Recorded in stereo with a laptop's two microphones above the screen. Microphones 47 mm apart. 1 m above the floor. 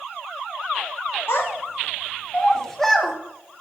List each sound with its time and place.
1.3 s a child speaking: 65° left (ahead or behind), 0.8 m; by 3.1 s centre (ahead or behind), 1.4 m